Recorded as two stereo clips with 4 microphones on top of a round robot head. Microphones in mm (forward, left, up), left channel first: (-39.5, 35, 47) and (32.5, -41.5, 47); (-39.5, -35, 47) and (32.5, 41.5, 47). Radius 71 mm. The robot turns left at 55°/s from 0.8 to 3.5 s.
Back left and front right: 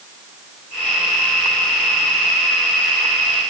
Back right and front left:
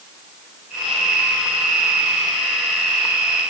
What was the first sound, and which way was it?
Only background noise.